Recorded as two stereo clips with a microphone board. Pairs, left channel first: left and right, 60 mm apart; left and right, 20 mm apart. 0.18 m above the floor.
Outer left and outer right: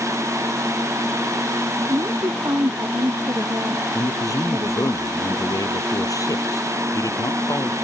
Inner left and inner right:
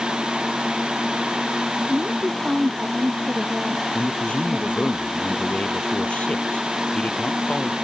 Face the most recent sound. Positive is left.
turn(degrees=75)  # may be behind; listen again after turning